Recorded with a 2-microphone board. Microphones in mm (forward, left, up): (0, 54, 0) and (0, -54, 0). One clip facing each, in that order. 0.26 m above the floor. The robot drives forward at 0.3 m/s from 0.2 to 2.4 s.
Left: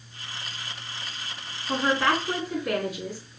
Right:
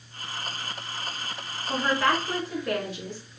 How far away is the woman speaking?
About 2.5 m.